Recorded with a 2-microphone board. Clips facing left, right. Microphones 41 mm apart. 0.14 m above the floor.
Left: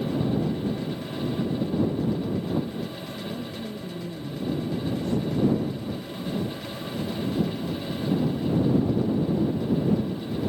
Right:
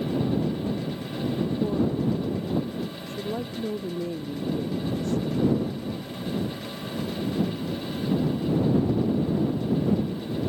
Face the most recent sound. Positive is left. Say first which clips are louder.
# right 1 dB
turn(degrees=-65)  # may be behind; listen again after turning